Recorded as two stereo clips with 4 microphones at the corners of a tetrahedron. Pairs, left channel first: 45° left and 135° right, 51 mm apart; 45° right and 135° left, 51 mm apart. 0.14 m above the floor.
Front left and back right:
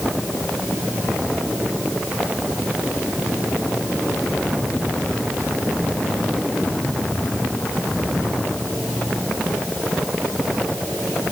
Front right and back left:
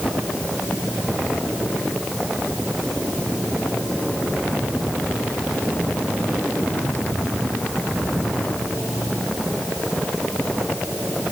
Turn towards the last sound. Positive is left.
No sound to turn to.